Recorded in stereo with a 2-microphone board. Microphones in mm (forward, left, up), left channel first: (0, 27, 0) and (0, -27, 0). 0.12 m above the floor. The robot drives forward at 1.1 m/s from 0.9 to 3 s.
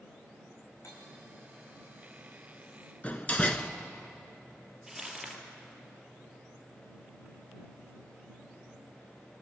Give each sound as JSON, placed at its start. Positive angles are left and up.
{"t": 0.8, "sound": "cutlery clinking", "side_deg": 80, "distance_m": 4.5}
{"t": 3.0, "sound": "a door slam", "side_deg": 25, "distance_m": 1.0}
{"t": 4.9, "sound": "crumpling", "side_deg": -5, "distance_m": 2.5}